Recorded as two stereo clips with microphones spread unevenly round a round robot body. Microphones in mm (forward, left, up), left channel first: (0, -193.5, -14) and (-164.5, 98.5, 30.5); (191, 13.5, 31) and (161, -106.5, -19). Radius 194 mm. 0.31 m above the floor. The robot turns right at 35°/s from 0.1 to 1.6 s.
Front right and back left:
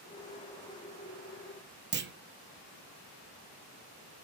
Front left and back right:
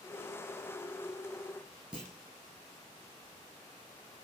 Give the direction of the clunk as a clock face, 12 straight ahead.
6 o'clock.